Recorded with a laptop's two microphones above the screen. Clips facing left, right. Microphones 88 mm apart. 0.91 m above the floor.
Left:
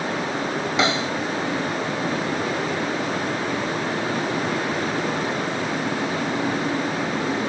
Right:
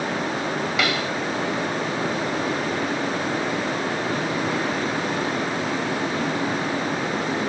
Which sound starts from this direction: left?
A snare drum, at 0.8 s.